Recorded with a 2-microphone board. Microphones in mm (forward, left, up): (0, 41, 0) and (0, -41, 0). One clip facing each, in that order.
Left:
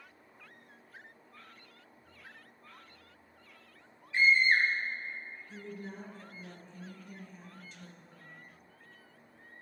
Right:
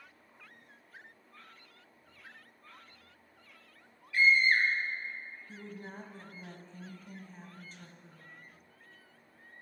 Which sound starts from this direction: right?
A woman speaking, at 5.5 s.